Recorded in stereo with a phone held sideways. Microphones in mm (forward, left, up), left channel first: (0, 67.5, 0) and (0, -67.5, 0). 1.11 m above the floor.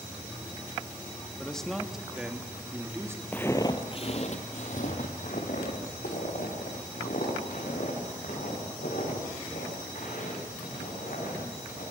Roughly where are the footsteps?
Centre.